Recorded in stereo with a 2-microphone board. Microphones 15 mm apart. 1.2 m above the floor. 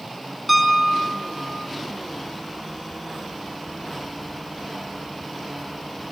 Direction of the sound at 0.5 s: Centre (ahead or behind).